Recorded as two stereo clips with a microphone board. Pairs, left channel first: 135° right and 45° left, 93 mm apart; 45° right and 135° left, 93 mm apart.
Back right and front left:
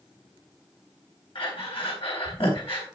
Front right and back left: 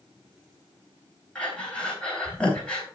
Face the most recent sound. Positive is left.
turn(degrees=-125)